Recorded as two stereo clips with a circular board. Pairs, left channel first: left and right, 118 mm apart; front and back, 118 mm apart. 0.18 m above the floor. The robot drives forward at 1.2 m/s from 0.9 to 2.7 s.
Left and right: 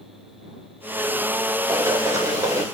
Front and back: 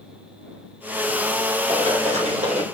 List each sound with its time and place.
1.7 s running footsteps: 150° right, 6.5 m; by 2.6 s 155° right, 7.5 m